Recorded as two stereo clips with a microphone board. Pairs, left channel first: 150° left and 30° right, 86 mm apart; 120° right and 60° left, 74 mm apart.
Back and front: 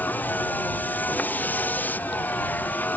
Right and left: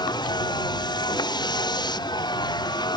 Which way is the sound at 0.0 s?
140° right.